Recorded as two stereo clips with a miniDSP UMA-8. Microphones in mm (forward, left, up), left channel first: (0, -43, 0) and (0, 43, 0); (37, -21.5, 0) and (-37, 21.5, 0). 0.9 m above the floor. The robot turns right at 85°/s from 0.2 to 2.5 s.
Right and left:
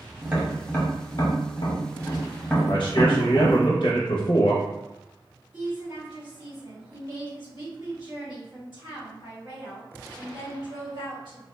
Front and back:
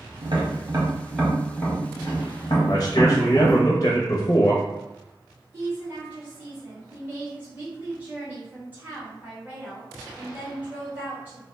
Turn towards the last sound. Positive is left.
turn(degrees=80)